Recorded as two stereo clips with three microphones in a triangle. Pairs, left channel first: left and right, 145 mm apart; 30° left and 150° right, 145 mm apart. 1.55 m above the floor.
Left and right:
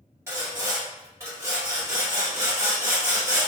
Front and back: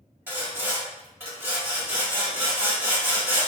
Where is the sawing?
110° right, 1.4 m.